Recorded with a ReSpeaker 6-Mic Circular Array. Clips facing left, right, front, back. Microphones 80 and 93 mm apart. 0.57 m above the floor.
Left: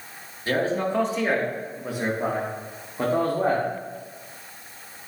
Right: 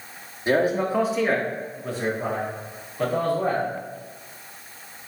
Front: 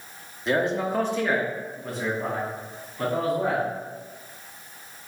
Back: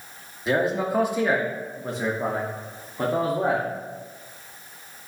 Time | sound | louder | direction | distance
0.5 | a man speaking | right 3 dB, back 1 dB | 95° right | 1.1 m